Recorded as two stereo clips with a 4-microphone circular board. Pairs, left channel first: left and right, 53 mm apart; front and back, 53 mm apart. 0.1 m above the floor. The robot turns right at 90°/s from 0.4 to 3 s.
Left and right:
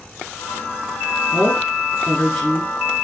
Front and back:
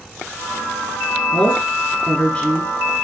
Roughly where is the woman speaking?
Right.